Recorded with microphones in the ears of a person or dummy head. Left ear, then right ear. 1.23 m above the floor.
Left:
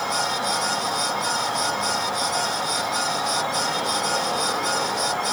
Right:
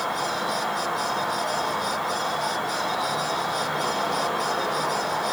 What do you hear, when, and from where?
0.0 s an insect: 55° right (ahead or behind), 4.5 m